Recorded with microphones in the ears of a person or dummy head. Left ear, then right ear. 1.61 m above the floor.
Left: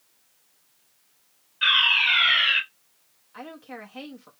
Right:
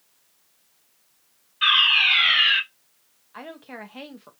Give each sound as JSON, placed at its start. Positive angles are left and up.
{"t": 1.6, "sound": "a fire alarm", "side_deg": -15, "distance_m": 3.0}
{"t": 3.3, "sound": "a woman speaking", "side_deg": -15, "distance_m": 0.5}